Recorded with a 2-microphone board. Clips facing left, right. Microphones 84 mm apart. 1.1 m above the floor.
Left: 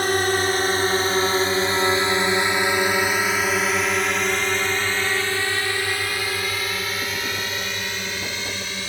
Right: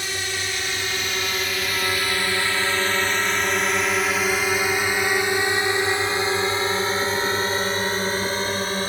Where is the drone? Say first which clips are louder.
Left 9 dB; 50° left (ahead or behind); by 8.9 s 40° right (ahead or behind).